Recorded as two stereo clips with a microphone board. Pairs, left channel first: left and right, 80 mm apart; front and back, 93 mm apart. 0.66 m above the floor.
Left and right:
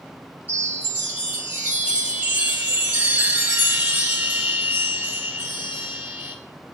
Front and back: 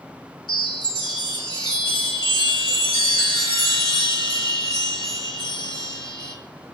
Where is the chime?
25° right, 1.5 m.